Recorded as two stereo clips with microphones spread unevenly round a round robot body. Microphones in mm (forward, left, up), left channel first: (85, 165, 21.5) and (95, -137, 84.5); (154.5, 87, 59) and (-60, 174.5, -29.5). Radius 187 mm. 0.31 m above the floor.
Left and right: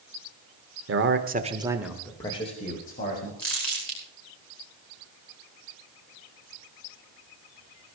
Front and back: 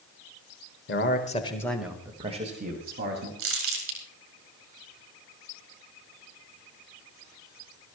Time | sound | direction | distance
0.9 | a man speaking | 60° right | 1.5 m
3.4 | crumpling | 175° left | 4.5 m